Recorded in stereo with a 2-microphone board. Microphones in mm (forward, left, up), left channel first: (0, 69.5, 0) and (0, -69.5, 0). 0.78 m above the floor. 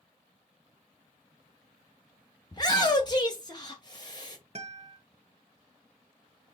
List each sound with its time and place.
2.5 s a shout: 30° left (ahead or behind), 0.6 m
4.5 s a guitar: 45° right (ahead or behind), 0.9 m